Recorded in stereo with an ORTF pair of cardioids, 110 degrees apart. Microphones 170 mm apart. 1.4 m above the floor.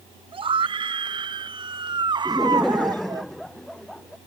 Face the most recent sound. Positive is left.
turn(degrees=0)